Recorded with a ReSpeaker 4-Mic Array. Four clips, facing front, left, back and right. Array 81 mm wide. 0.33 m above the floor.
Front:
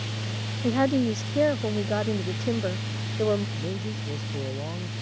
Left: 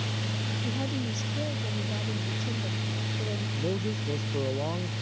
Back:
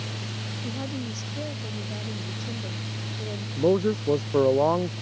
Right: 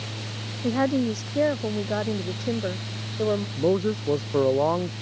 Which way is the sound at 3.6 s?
145° right.